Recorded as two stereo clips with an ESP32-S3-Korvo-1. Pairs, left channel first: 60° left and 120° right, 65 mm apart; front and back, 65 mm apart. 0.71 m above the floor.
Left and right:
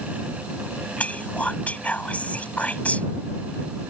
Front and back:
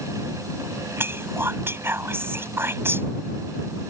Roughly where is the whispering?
Behind left.